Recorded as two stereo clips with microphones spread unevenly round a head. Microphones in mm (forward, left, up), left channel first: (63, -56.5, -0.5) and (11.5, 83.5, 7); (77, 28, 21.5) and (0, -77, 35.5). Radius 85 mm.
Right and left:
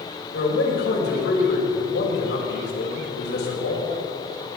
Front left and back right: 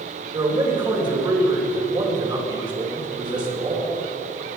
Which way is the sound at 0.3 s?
70° right.